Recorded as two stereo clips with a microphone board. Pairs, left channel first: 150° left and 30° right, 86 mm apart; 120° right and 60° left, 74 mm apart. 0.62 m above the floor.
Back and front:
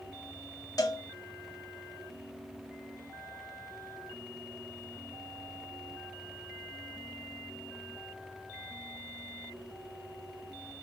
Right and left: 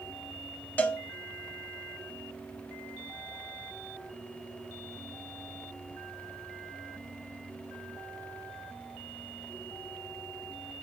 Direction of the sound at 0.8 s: 175° left.